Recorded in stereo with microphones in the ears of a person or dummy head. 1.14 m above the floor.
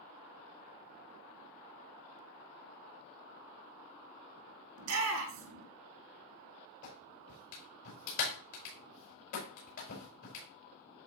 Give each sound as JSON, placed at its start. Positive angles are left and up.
{"t": 4.8, "sound": "a shout", "side_deg": -85, "distance_m": 3.0}
{"t": 6.8, "sound": "a clap", "side_deg": 75, "distance_m": 4.5}